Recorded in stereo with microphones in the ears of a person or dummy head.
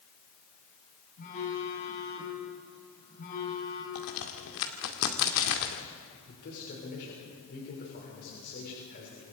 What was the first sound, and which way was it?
A phone buzzing, 45° left (ahead or behind).